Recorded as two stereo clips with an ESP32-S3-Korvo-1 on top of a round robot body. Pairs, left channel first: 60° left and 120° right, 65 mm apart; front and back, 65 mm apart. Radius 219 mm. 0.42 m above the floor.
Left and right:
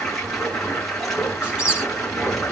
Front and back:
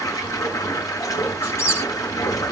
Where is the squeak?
45° right, 9.5 m.